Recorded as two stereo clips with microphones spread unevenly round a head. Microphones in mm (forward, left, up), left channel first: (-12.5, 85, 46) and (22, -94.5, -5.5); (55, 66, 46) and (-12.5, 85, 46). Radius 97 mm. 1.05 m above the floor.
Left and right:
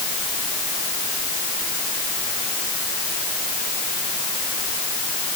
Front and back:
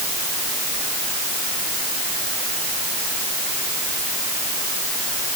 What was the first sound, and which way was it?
Only background noise.